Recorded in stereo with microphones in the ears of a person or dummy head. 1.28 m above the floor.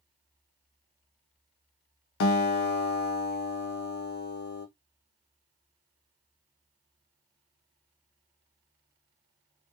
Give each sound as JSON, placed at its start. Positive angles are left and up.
{"t": 2.2, "sound": "a guitar", "side_deg": 60, "distance_m": 0.7}